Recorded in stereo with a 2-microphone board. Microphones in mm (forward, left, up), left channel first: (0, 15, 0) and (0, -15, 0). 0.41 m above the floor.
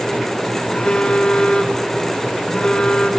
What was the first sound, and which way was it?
A phone buzzing, 35° left (ahead or behind).